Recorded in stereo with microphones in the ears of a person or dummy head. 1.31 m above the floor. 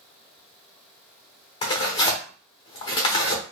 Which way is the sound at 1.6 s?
20° left (ahead or behind).